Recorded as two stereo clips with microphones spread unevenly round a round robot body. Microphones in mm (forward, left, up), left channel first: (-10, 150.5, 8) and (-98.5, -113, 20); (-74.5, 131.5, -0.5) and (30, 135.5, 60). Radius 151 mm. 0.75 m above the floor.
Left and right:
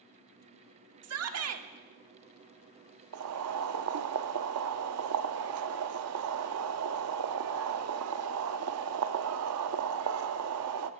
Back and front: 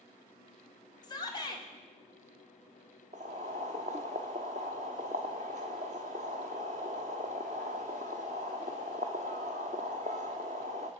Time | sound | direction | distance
1.0 | a shout | 140° right | 1.6 m
3.1 | boiling | 60° right | 0.5 m